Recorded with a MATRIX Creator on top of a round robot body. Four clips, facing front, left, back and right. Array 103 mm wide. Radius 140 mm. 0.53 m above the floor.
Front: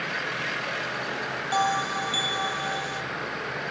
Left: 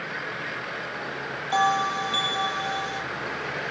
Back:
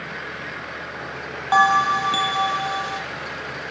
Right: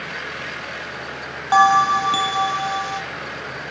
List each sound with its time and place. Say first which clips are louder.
1.5 s a bell: right 9 dB, back 9 dB; 125° right, 0.9 m